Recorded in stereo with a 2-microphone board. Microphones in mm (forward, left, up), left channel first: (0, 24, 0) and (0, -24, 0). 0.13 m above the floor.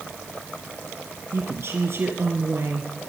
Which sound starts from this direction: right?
A woman speaking, at 1.3 s.